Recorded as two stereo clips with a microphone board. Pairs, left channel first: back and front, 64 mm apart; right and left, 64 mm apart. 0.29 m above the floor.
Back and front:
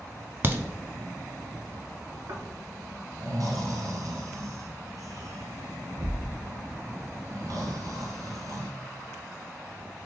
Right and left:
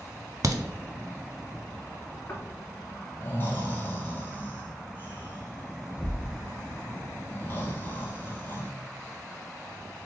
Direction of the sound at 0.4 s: 55° left.